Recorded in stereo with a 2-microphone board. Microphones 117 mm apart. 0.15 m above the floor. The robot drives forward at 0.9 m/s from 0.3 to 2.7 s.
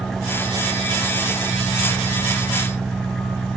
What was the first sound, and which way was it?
An engine running, centre (ahead or behind).